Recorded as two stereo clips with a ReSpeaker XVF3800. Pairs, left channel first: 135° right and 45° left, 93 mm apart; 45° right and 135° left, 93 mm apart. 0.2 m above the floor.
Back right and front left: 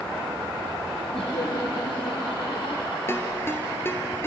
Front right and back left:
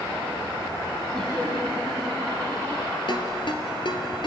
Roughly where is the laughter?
Behind right.